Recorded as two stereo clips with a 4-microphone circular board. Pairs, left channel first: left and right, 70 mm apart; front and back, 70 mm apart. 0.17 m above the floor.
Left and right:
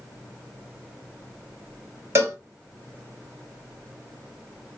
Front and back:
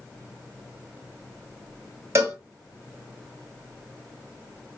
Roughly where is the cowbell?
Behind right.